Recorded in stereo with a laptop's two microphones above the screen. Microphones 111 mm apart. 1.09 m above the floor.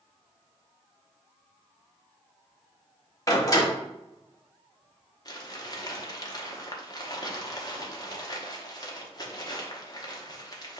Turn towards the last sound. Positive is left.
turn(degrees=35)  # may be behind; listen again after turning